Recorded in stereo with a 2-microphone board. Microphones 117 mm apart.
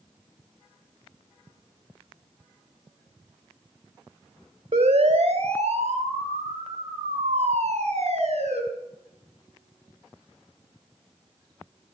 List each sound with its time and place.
4.7 s a siren: 70° right (ahead or behind), 3 m; by 8.6 s 65° right (ahead or behind), 5.5 m